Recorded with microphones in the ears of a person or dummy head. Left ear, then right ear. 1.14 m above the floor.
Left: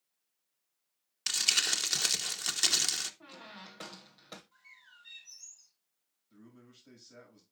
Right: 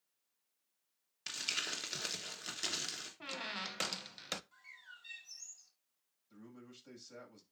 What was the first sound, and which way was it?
Crumpling, 25° left (ahead or behind).